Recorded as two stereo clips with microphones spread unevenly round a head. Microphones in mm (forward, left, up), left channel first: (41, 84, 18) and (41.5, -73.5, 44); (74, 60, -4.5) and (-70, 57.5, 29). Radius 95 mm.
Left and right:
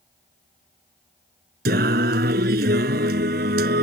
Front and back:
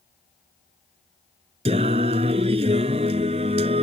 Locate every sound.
1.6 s singing: 125° right